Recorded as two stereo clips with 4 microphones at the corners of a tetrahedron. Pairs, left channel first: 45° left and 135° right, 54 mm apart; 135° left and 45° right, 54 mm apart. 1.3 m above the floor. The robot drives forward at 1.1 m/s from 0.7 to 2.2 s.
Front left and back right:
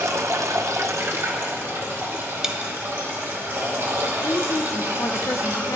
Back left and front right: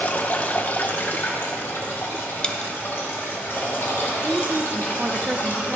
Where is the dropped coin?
175° left, 0.6 m.